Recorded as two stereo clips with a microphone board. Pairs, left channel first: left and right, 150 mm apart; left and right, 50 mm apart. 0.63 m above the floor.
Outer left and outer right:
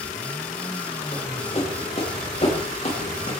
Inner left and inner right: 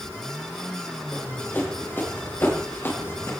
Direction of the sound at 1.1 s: 40° left (ahead or behind).